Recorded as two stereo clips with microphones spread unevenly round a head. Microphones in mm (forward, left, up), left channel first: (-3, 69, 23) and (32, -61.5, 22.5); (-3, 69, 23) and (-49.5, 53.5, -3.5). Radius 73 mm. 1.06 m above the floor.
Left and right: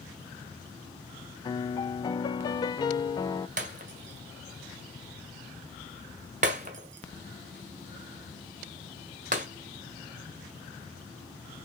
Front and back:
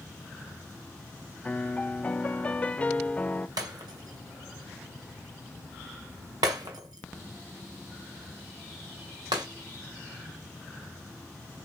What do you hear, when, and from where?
1.4 s a piano: 115° left, 0.8 m
3.6 s breaking glass: 115° right, 1.5 m